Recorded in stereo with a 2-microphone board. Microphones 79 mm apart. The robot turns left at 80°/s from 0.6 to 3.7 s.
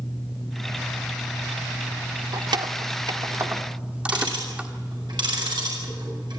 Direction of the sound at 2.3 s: 55° right (ahead or behind).